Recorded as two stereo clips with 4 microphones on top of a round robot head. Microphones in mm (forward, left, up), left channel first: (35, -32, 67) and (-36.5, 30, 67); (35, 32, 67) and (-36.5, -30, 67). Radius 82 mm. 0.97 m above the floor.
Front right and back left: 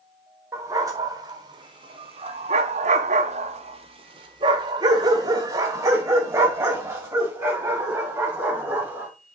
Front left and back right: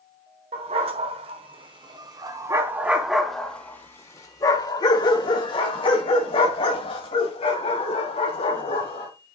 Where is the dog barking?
160° right, 1.6 m; by 9.1 s 65° left, 3.5 m.